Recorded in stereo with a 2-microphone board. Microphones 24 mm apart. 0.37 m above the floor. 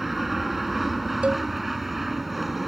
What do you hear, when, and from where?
0.0 s an aircraft: 5° right (ahead or behind)
1.2 s a cowbell: 55° right (ahead or behind)